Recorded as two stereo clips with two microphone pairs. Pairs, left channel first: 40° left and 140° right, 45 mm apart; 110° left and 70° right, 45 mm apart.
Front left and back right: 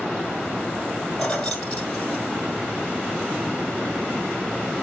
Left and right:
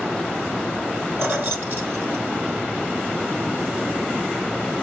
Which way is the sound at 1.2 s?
35° right.